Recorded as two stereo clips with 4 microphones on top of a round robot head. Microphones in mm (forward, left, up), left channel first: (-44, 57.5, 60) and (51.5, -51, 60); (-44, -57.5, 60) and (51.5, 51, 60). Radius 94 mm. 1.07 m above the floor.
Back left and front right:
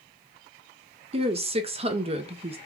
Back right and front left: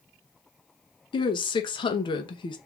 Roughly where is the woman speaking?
Right.